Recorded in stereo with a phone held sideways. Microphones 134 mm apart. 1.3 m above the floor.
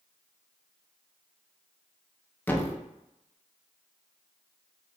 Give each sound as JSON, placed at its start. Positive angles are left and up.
{"t": 2.5, "sound": "a thud", "side_deg": 15, "distance_m": 0.6}